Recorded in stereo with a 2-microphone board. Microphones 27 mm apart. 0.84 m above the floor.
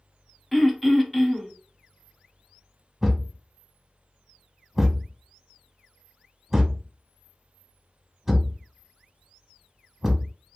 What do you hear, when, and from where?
0.5 s throat clearing: centre (ahead or behind), 0.7 m
3.0 s a thud: 15° right (ahead or behind), 0.7 m